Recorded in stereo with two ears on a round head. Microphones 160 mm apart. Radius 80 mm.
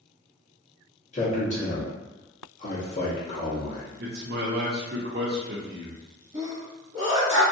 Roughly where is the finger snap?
No finger snap in this recording.